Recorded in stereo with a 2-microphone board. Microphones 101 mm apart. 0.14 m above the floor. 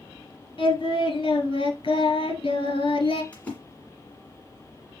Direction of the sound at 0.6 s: 60° left (ahead or behind).